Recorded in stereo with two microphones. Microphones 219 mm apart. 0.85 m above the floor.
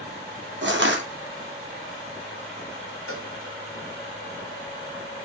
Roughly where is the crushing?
Right.